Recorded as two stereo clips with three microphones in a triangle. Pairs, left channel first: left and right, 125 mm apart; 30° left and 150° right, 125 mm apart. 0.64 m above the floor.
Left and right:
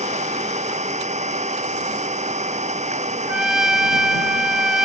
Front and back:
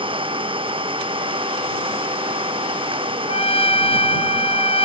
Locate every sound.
0.0 s an engine running: 105° right
3.3 s a trumpet: 5° right